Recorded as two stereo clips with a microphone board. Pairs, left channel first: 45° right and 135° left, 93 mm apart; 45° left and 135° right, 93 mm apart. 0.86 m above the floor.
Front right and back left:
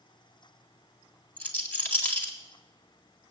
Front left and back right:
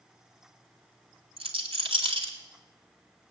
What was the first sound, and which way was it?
A rattle, 120° right.